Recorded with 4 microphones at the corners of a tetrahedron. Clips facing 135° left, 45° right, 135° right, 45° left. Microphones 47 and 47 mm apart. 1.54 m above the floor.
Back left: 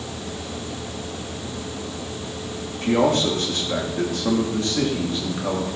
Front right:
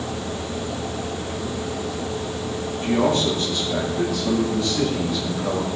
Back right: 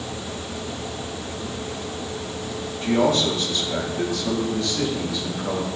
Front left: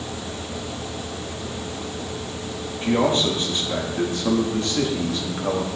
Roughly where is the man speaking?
Left.